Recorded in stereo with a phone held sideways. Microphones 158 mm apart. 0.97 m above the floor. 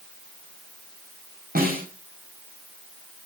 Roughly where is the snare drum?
Right.